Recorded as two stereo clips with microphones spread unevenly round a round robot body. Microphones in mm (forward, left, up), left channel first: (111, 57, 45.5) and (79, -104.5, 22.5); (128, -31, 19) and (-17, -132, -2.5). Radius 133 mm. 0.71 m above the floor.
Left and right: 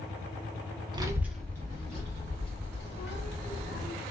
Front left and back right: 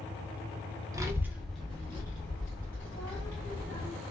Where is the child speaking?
105° right, 0.6 m; by 3.9 s 100° left, 1.6 m.